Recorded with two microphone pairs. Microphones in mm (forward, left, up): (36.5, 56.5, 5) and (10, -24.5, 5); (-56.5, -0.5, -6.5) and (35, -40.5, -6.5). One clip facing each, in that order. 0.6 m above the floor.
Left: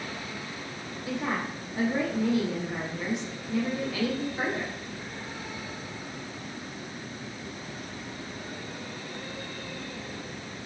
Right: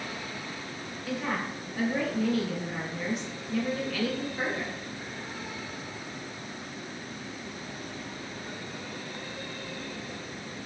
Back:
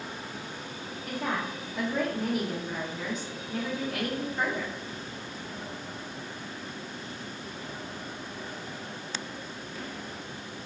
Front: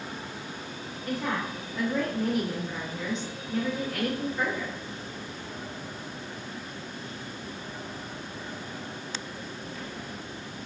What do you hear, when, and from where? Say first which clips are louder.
1.1 s a woman speaking: left 1 dB, front 2 dB; 85° left, 0.6 m